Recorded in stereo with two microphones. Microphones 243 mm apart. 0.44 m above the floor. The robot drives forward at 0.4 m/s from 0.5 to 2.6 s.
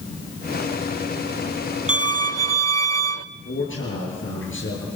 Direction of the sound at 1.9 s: 65° right (ahead or behind).